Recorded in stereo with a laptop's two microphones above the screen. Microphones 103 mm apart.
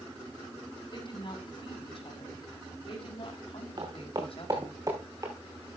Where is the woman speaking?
50° left (ahead or behind), 6.5 m; by 4.8 s 65° left (ahead or behind), 5 m.